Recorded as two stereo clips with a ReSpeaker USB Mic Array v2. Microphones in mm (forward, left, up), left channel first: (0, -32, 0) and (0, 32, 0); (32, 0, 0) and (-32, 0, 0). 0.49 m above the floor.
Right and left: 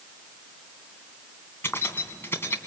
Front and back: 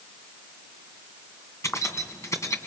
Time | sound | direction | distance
1.6 | keys jangling | 35° right | 2.5 m